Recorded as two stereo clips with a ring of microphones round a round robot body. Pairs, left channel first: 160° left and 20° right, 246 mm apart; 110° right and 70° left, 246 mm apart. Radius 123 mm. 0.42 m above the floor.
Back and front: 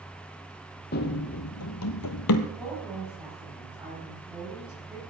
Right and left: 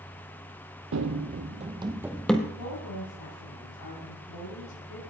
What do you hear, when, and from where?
0.9 s running footsteps: 105° left, 1.0 m; by 2.5 s 165° left, 0.9 m
2.6 s a woman speaking: 105° right, 4.5 m